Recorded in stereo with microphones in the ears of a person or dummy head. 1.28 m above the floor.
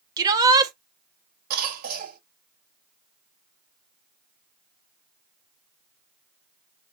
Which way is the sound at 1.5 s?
50° right (ahead or behind).